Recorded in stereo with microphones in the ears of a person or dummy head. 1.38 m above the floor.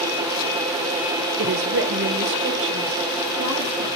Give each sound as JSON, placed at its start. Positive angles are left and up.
{"t": 1.4, "sound": "a woman speaking", "side_deg": -60, "distance_m": 0.6}